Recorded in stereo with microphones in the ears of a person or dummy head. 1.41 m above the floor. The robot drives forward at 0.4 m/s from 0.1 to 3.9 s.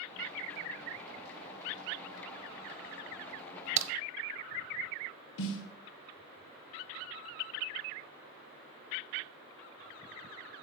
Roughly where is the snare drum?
Left.